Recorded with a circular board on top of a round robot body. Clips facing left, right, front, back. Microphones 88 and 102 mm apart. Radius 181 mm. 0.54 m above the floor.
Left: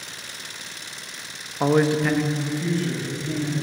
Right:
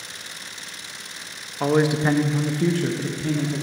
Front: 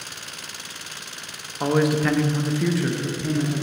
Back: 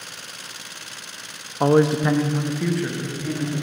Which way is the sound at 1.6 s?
160° left.